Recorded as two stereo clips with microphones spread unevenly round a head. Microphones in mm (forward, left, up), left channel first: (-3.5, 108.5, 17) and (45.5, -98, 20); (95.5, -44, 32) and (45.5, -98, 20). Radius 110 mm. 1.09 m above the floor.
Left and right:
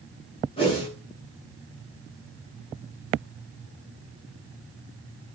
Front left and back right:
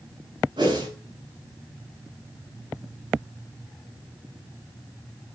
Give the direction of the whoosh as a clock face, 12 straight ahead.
6 o'clock.